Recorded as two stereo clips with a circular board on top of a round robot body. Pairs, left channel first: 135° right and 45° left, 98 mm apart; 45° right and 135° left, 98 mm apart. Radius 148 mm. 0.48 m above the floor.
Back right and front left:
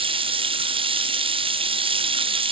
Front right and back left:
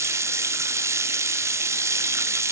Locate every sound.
0.0 s running water: 75° left, 1.0 m